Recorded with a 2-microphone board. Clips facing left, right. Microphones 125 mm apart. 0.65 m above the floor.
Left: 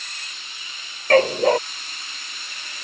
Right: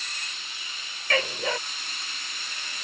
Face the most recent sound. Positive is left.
turn(degrees=45)  # may be behind; listen again after turning